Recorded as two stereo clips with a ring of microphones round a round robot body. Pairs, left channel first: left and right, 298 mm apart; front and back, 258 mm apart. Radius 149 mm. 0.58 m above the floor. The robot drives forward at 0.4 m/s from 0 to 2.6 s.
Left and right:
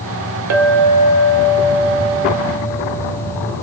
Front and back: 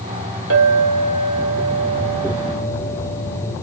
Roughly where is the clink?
Behind right.